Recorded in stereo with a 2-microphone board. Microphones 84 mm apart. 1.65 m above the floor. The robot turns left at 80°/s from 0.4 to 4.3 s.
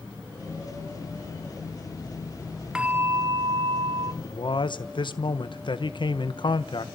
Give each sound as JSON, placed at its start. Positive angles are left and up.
{"t": 2.8, "sound": "a bell", "azimuth_deg": -10, "distance_m": 0.8}
{"t": 4.2, "sound": "a man speaking", "side_deg": 70, "distance_m": 1.4}